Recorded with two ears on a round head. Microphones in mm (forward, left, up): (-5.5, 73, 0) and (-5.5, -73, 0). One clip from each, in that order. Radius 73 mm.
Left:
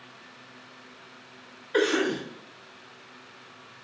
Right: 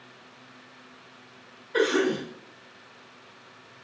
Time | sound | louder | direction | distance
1.7 | a cough | right 1 dB | 75° left (ahead or behind) | 1.0 m